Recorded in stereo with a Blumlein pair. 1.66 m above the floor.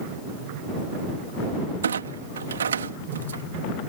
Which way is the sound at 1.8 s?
70° right.